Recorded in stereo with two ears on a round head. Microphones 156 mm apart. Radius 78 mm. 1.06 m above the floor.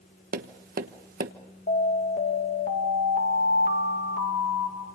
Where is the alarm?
45° left (ahead or behind), 2.5 m.